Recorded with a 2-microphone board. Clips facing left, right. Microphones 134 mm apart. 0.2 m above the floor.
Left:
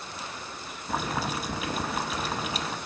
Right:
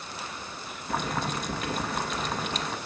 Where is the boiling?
5° left (ahead or behind), 0.7 m.